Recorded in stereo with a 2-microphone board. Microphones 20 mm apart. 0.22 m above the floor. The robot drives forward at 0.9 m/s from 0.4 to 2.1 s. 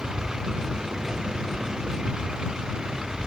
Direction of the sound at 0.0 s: 30° right (ahead or behind).